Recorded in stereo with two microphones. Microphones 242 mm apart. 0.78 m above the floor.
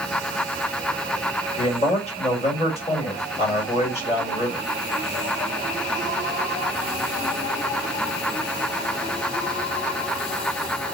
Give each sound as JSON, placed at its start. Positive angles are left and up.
{"t": 1.6, "sound": "a man speaking", "side_deg": 25, "distance_m": 3.0}